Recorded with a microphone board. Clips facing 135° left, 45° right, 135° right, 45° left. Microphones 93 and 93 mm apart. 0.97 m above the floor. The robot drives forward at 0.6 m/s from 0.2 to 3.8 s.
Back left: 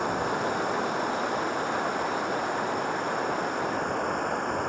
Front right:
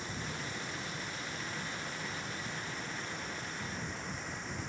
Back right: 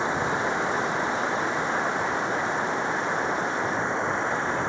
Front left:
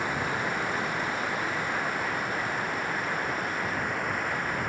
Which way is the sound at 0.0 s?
160° left.